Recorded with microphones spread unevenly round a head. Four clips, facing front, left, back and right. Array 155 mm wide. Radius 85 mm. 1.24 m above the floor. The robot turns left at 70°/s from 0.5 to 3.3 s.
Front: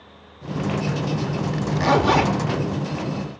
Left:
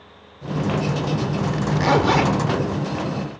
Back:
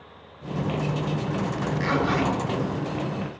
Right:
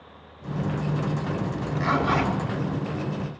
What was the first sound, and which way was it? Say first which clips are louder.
A zipper: left 7 dB, front 8 dB; 75° left.